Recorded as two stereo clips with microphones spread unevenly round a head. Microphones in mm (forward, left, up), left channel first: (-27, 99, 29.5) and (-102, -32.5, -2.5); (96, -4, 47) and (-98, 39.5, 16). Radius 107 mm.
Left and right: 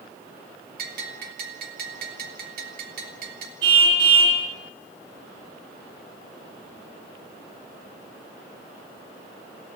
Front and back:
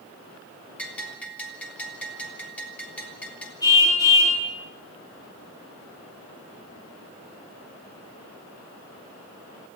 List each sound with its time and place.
0.8 s a bell: 100° right, 3 m
3.6 s a car horn: 85° right, 6.5 m